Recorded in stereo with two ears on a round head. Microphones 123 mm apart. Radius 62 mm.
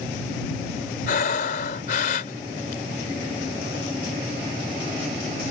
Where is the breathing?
65° left (ahead or behind).